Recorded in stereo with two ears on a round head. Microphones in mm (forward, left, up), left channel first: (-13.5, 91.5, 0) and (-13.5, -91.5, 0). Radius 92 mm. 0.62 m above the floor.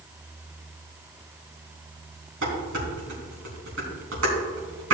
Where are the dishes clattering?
70° right (ahead or behind), 3.5 m.